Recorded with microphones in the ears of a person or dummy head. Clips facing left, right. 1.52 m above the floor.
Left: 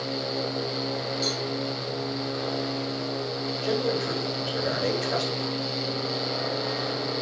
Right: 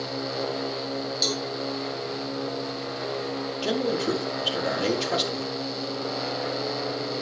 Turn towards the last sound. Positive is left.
turn(degrees=-40)  # may be behind; listen again after turning